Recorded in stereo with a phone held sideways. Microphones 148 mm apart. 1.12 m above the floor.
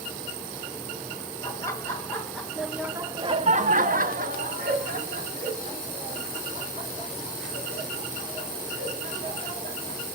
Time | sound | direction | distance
1.4 | laughter | 20° left (ahead or behind) | 1.6 m